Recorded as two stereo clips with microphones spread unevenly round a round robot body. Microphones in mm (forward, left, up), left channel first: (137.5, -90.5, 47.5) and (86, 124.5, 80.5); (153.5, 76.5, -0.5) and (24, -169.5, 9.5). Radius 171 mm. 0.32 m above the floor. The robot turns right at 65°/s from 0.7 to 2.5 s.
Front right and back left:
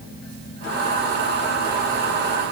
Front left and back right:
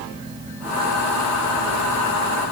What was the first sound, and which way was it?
Only background noise.